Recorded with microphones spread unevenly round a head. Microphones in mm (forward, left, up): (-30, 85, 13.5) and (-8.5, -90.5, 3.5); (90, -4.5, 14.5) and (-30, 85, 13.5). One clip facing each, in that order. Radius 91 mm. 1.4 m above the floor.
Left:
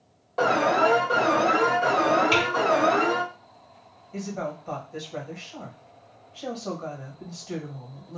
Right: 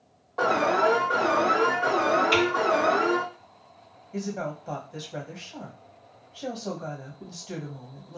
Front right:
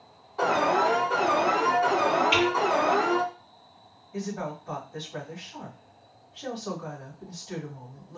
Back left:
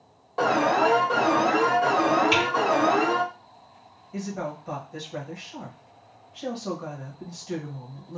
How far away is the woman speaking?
About 1.5 m.